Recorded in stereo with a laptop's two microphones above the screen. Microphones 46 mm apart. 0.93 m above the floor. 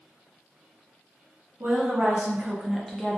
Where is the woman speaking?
55° right (ahead or behind), 0.9 m; by 3.2 s 20° left (ahead or behind), 0.6 m.